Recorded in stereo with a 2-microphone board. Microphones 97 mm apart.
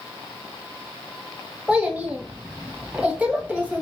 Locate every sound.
1.7 s a child speaking: 15° right (ahead or behind), 0.7 m